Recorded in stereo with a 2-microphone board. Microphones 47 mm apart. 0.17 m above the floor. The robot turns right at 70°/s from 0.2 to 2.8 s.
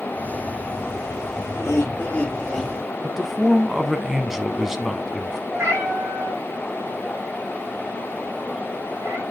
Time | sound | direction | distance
1.5 | laughter | 105° left | 4.5 m
3.0 | a man speaking | 5° right (ahead or behind) | 1.1 m
5.5 | a cat meowing | 70° right (ahead or behind) | 4.5 m